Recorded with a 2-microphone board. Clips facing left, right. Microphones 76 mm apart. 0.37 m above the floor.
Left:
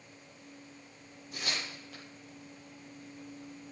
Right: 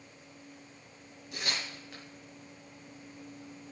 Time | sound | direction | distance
1.3 | tearing paper | 80° right | 7 m